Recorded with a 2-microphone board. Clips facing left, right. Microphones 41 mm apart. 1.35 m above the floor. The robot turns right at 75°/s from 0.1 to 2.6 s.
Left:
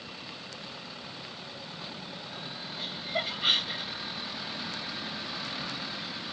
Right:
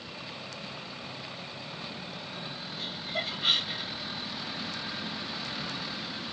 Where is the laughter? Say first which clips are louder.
Left 2 dB; 25° left (ahead or behind), 0.6 m.